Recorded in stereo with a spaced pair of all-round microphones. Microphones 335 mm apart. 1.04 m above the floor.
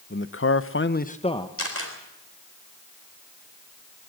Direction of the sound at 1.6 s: 40° left (ahead or behind).